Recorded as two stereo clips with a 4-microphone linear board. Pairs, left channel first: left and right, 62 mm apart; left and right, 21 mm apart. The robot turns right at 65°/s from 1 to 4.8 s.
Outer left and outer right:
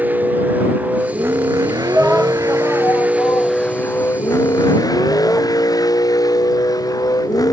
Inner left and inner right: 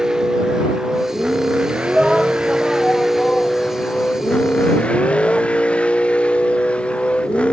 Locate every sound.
0.0 s a vehicle: 30° right (ahead or behind); by 7.5 s 80° left
1.9 s a shout: 20° right (ahead or behind); by 5.5 s 10° left (ahead or behind)